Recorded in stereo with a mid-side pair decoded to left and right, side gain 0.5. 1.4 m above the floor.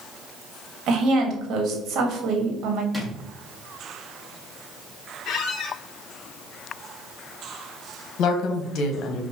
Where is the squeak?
65° left, 0.8 m.